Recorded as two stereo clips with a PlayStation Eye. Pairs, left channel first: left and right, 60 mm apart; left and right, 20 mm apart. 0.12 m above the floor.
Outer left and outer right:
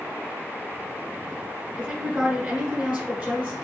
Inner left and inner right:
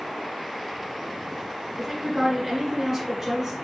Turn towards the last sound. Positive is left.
turn(degrees=-25)  # may be behind; listen again after turning